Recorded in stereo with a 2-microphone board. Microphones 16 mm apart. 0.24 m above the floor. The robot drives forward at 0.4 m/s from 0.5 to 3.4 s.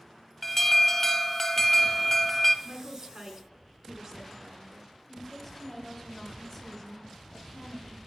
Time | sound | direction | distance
0.4 | an alarm | 15° left (ahead or behind) | 0.8 m
2.6 | a woman speaking | 40° right (ahead or behind) | 2.5 m
5.1 | a woman speaking | 5° left (ahead or behind) | 1.2 m